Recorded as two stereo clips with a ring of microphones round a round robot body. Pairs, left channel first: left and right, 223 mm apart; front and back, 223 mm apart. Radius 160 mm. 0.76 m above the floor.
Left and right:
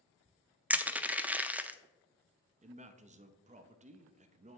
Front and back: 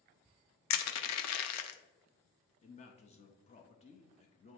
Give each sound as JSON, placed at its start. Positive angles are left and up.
{"t": 0.7, "sound": "crushing", "azimuth_deg": -5, "distance_m": 0.6}
{"t": 2.6, "sound": "a man speaking", "azimuth_deg": -45, "distance_m": 0.5}